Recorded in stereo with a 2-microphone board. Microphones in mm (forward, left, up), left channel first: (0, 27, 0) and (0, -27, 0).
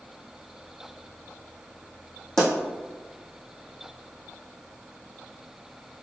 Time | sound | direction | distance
2.4 | a pop | 10° left (ahead or behind) | 1.8 m